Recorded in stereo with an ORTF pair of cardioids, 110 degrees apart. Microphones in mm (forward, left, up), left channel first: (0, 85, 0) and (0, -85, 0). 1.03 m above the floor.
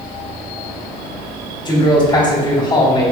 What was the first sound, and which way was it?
A man speaking, 30° left.